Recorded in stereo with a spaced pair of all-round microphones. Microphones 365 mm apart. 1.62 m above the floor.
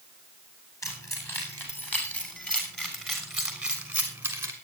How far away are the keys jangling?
About 8.5 m.